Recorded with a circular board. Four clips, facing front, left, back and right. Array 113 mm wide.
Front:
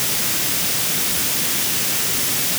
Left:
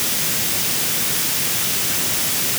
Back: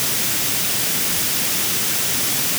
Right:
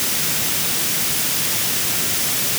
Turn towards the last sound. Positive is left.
No sound to turn to.